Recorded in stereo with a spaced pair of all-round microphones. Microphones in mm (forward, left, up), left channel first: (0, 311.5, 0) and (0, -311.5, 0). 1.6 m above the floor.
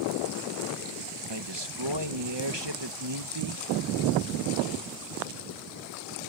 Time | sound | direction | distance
1.3 | a man speaking | 40° right (ahead or behind) | ?